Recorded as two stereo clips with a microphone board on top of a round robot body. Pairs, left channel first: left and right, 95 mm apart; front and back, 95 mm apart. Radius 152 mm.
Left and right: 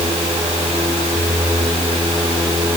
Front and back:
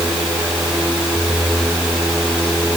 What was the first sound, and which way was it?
Only background noise.